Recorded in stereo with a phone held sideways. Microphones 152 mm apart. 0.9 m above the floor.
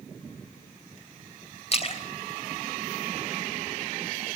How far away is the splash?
About 3 m.